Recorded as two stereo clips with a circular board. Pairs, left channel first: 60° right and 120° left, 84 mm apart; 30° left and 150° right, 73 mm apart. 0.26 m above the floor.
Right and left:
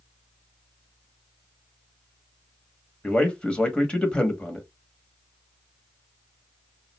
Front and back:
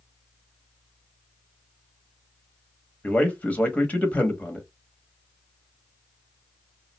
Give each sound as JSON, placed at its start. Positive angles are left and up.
{"t": 3.0, "sound": "a man speaking", "azimuth_deg": 0, "distance_m": 0.9}